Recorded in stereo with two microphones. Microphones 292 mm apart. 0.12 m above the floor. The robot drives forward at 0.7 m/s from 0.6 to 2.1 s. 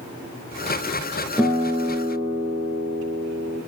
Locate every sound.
1.4 s a guitar: 10° right (ahead or behind), 1.0 m